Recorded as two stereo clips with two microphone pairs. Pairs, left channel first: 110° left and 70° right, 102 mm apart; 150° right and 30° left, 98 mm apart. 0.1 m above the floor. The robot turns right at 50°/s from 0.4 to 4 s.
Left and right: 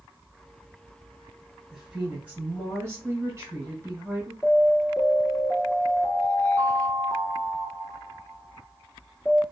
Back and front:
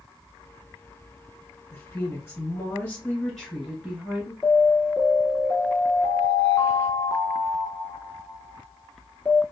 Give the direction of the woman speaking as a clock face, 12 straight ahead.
5 o'clock.